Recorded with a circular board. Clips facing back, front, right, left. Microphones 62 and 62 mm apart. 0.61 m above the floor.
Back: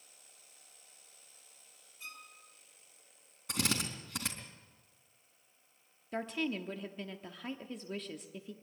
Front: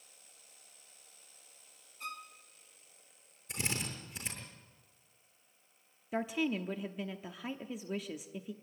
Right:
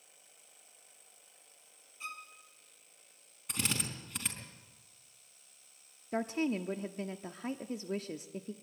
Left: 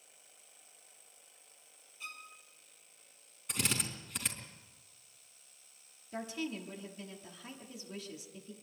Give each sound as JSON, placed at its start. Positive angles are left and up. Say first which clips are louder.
{"t": 2.0, "sound": "a violin", "louder": "front 7 dB, right 3 dB", "azimuth_deg": -35, "distance_m": 3.0}
{"t": 3.5, "sound": "a drill", "louder": "back 3 dB, even", "azimuth_deg": -175, "distance_m": 4.0}
{"t": 6.1, "sound": "a woman speaking", "louder": "front 2 dB, right 7 dB", "azimuth_deg": -80, "distance_m": 0.8}